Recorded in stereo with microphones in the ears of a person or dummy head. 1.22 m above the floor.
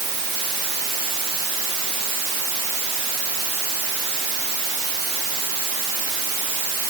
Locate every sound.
Only background noise.